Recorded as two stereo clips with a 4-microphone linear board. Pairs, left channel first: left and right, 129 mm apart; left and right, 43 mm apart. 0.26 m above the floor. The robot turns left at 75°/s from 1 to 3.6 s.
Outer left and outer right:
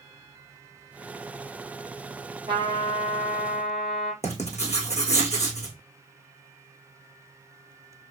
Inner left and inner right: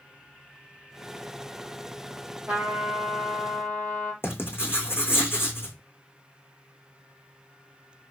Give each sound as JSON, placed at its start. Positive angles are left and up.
{"t": 2.5, "sound": "a trumpet", "azimuth_deg": -140, "distance_m": 3.0}
{"t": 4.2, "sound": "writing", "side_deg": 60, "distance_m": 3.0}